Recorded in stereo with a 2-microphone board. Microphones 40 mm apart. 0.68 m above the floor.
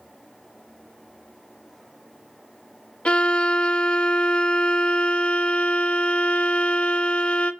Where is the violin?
30° left (ahead or behind), 0.5 m.